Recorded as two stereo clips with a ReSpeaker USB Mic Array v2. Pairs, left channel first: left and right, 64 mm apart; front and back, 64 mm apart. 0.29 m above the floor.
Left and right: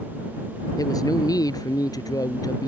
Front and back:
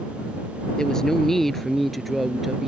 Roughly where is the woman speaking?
Left.